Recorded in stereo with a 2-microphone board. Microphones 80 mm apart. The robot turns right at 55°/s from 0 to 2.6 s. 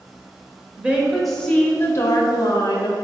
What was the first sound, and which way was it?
A woman speaking, 25° right.